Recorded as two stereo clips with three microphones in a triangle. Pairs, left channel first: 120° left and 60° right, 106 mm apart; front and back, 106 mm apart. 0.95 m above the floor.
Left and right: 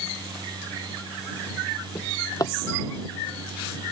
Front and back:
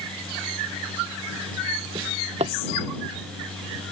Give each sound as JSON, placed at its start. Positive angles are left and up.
{"t": 1.9, "sound": "a drawer", "azimuth_deg": 175}